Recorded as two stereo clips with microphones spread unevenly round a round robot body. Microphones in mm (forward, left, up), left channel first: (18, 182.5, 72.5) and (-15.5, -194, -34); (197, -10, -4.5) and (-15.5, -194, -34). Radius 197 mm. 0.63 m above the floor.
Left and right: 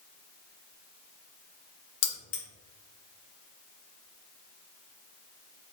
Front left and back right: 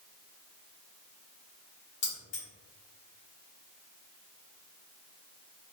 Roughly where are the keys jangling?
Left.